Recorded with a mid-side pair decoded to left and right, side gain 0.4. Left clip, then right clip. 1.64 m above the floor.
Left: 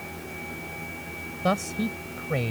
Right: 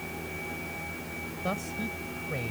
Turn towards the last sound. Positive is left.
turn(degrees=60)